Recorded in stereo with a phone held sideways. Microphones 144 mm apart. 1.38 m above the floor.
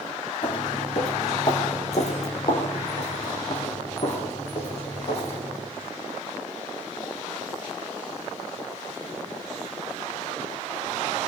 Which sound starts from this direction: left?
Footsteps, at 0.4 s.